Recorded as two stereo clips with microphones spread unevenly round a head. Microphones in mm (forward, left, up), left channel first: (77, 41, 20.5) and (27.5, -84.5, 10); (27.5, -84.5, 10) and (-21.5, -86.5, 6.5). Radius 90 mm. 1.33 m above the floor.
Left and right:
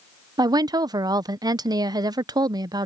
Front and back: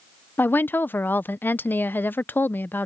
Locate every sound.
0.4 s a woman speaking: 50° right